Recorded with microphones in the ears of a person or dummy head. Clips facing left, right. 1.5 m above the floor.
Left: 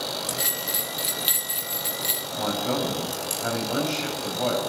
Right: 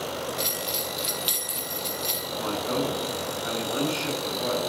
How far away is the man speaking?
About 7.5 m.